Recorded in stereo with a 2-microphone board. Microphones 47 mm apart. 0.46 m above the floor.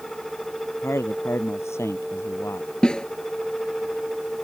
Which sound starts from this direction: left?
A man speaking, at 0.8 s.